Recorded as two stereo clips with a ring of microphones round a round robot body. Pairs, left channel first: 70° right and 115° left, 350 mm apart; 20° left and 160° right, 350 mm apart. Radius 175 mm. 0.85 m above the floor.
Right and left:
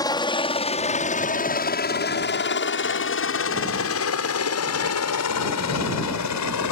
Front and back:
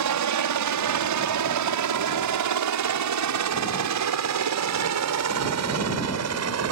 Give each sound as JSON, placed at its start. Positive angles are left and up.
{"t": 0.0, "sound": "a helicopter", "azimuth_deg": -145}